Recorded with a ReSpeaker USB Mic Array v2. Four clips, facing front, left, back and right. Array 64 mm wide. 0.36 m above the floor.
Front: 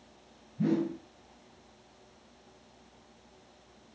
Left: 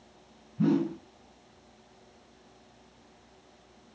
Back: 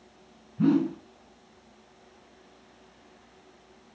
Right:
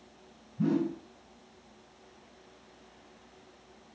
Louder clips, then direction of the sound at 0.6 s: Left 3 dB, back 6 dB; 165° left.